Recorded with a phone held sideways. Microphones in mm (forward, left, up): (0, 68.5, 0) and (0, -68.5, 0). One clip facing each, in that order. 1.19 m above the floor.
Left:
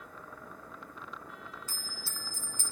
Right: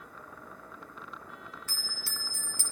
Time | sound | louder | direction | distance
1.7 | a bell | right 1 dB | 75° right (ahead or behind) | 0.7 m